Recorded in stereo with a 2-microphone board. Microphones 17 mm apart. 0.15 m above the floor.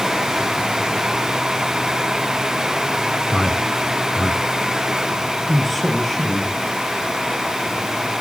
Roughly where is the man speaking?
Left.